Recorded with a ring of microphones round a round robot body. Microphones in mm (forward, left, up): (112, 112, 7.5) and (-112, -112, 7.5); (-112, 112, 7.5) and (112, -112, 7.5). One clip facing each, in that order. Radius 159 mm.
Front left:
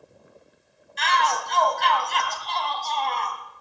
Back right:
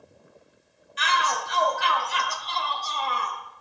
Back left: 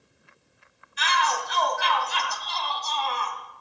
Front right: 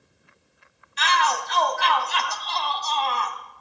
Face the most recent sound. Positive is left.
turn(degrees=-55)